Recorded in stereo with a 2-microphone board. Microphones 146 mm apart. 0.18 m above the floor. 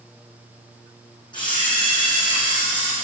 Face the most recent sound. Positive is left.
turn(degrees=30)  # may be behind; listen again after turning